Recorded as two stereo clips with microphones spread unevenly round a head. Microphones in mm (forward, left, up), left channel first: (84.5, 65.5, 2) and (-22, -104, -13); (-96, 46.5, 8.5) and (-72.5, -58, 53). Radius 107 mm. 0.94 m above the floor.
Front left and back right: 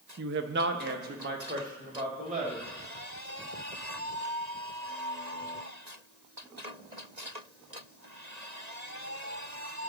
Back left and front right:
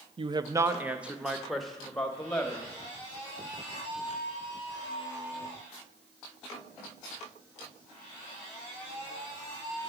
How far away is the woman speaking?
About 0.5 m.